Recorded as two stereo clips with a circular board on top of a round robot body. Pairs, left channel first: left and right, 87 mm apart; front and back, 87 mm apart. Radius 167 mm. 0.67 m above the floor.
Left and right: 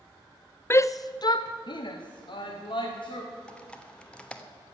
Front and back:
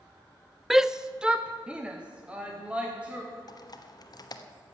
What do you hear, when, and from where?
0.7 s a shout: 100° left, 0.5 m; by 3.2 s 105° left, 2 m
3.5 s typing on a keyboard: 15° left, 1.4 m